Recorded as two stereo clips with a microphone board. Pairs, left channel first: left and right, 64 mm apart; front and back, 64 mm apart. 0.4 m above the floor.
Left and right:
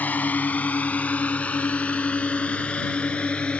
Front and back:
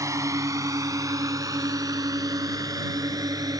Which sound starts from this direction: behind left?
A drone, at 0.0 s.